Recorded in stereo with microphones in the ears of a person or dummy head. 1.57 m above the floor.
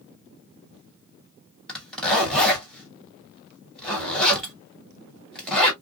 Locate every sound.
1.7 s a zipper: 5° left (ahead or behind), 1.4 m